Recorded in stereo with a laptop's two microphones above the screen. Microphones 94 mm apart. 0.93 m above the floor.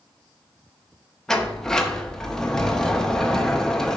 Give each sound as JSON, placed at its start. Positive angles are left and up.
{"t": 1.3, "sound": "a sliding door", "side_deg": 5, "distance_m": 0.6}